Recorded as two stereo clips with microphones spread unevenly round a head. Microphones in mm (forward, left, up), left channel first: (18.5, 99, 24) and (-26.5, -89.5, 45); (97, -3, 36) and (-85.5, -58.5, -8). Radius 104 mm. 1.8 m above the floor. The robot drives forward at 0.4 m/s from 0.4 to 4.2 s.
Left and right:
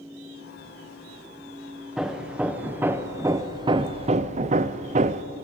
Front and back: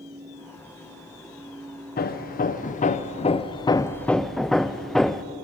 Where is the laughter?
I don't hear laughter.